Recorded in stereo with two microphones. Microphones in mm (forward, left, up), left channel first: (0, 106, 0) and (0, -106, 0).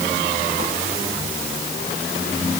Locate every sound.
Only background noise.